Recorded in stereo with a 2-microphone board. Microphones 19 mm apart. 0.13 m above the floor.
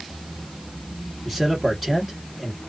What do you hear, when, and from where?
1.2 s a man speaking: 5° left (ahead or behind), 1.3 m